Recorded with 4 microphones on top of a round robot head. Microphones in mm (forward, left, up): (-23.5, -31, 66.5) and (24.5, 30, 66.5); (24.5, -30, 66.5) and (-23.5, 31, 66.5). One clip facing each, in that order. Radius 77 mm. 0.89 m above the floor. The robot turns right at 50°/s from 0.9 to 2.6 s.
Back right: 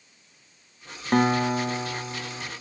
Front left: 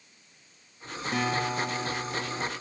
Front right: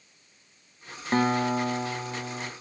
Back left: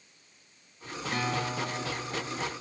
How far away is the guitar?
About 0.5 m.